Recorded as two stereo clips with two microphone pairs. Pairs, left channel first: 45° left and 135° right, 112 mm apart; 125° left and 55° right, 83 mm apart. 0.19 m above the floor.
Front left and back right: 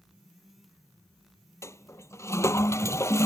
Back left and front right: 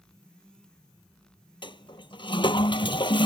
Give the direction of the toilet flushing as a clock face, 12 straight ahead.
8 o'clock.